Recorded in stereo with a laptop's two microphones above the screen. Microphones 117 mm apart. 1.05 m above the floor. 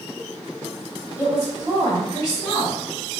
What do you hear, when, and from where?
1.2 s a woman speaking: 30° left (ahead or behind), 1.4 m